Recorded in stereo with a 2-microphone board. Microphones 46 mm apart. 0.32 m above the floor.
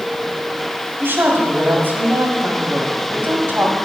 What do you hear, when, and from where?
1.0 s a woman speaking: 50° right (ahead or behind), 1.9 m